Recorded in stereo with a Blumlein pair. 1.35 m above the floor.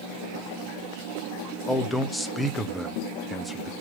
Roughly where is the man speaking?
Ahead.